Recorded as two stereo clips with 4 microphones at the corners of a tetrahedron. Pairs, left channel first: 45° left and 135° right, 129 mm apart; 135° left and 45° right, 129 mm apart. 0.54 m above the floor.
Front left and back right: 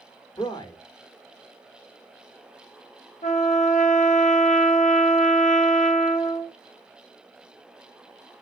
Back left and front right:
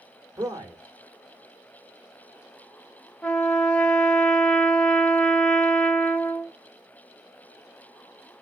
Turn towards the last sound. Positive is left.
turn(degrees=55)